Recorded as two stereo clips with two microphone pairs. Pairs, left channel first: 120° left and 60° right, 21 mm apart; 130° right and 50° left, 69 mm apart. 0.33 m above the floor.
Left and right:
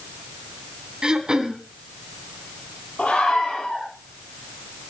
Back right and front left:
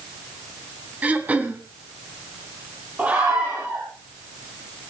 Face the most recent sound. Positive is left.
turn(degrees=115)